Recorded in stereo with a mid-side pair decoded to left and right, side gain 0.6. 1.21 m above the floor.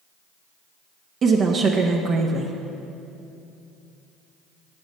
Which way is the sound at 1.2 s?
40° right.